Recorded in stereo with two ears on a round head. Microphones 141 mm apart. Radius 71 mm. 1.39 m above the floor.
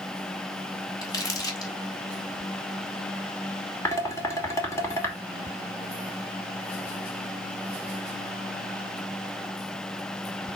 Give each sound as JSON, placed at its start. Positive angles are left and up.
{"t": 1.0, "sound": "crumpling", "side_deg": 25, "distance_m": 3.0}
{"t": 3.9, "sound": "dishes clattering", "side_deg": 20, "distance_m": 2.5}